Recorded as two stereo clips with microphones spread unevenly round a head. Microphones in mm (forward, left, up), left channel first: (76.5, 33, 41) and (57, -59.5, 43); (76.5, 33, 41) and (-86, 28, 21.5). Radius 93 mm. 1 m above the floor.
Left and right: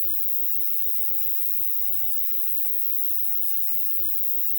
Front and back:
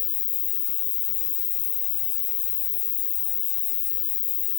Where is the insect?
5° left.